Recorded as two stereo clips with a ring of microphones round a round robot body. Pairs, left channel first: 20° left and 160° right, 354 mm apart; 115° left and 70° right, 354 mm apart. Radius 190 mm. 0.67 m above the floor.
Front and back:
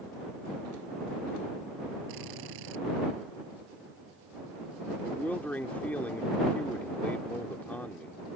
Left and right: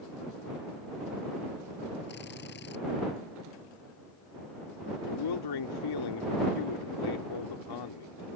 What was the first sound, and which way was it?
A drill, 175° left.